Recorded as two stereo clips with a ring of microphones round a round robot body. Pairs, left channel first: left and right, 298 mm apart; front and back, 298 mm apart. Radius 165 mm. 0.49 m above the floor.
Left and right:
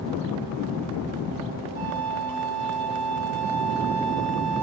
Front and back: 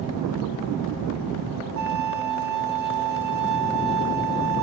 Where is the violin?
150° right, 6 m.